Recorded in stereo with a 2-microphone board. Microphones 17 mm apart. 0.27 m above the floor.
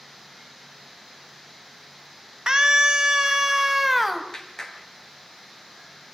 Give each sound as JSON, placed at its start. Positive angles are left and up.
{"t": 2.5, "sound": "a scream", "side_deg": -40, "distance_m": 2.0}
{"t": 4.3, "sound": "a clap", "side_deg": 35, "distance_m": 3.0}